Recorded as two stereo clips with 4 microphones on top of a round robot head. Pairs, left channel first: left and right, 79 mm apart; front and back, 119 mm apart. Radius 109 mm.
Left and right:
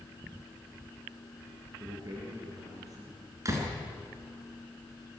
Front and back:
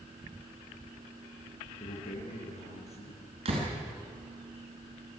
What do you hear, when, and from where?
1.8 s a man speaking: 40° right, 8 m; by 3.4 s 35° right, 7.5 m
3.5 s a door slam: 140° right, 5.5 m